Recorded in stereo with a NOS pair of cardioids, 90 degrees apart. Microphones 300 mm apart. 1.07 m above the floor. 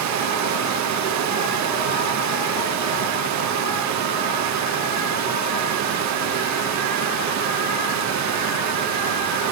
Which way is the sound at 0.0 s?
70° right.